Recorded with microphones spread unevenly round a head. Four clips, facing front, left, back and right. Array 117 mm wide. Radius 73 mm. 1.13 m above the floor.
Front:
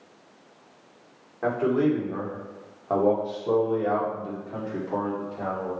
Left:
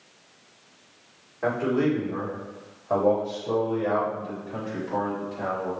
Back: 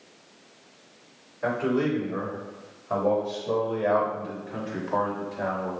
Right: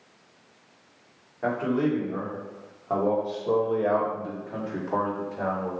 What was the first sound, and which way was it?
A man speaking, 5° right.